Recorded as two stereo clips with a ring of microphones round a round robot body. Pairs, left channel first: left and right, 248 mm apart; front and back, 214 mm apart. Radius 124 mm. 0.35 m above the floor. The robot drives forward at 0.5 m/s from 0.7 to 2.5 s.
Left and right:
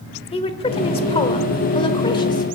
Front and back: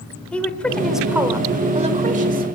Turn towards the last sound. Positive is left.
turn(degrees=155)